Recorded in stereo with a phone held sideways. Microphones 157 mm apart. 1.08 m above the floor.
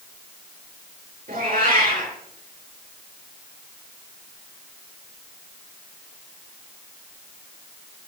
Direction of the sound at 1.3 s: 65° right (ahead or behind).